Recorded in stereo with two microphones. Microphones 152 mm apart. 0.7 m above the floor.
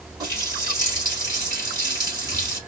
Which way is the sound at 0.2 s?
25° right (ahead or behind).